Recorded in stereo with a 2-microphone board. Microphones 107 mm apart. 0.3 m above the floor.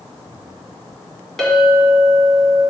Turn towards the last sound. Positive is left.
turn(degrees=5)  # may be behind; listen again after turning